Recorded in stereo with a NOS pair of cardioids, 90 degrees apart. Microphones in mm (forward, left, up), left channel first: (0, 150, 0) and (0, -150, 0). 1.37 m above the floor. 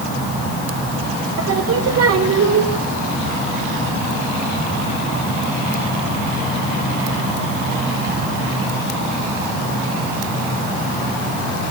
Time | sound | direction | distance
1.4 | singing | 55° right | 3.5 m